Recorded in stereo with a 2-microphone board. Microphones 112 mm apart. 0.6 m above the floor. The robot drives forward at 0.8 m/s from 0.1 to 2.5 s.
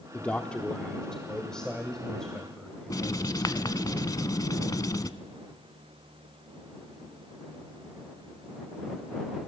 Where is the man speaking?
15° left (ahead or behind), 0.8 m; by 3.9 s 5° left (ahead or behind), 2.5 m.